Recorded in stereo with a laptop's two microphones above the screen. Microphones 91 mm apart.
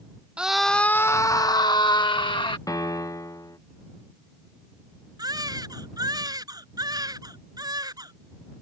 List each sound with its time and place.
0.4 s a scream: 10° right (ahead or behind); by 2.6 s 65° left (ahead or behind)
2.7 s a piano: 40° left (ahead or behind)
5.2 s a baby crying: 45° right (ahead or behind)